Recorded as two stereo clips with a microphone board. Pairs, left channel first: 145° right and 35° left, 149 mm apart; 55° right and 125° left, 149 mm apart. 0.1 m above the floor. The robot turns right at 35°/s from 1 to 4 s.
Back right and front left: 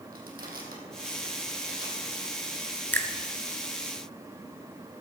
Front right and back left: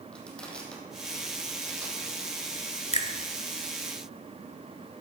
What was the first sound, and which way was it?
Crushing, 30° left.